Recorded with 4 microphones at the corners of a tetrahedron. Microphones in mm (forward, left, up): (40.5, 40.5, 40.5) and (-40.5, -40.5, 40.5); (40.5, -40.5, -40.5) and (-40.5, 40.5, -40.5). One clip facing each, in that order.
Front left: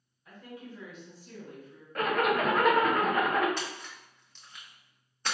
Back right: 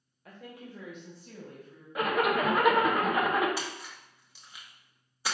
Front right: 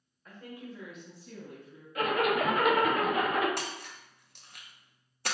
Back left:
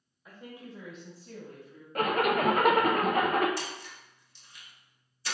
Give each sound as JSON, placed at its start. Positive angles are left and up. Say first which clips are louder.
{"t": 0.2, "sound": "a woman speaking", "louder": "front left 1 dB, front right 1 dB", "azimuth_deg": -145, "distance_m": 1.2}
{"t": 1.9, "sound": "a zipper", "louder": "even, back left 1 dB", "azimuth_deg": 145, "distance_m": 0.6}
{"t": 3.6, "sound": "a splash", "louder": "even, even", "azimuth_deg": -55, "distance_m": 0.6}